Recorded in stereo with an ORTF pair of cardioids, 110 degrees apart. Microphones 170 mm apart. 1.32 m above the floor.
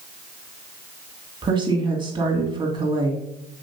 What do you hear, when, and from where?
1.4 s a woman speaking: 30° right, 2.5 m